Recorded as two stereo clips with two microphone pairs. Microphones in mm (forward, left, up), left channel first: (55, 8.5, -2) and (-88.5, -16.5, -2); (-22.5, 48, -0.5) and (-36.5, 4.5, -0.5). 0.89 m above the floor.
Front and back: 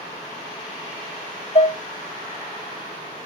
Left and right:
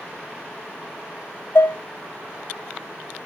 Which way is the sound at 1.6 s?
55° left.